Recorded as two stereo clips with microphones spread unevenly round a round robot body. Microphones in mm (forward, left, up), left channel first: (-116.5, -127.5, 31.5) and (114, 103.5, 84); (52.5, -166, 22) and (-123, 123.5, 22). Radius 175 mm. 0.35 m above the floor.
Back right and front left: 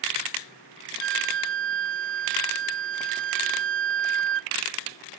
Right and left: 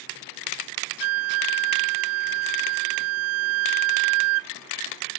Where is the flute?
90° left.